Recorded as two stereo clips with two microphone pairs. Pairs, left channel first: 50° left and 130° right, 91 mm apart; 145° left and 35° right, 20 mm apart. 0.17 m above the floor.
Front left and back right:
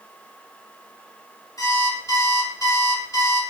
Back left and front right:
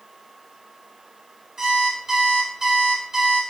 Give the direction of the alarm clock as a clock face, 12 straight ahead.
11 o'clock.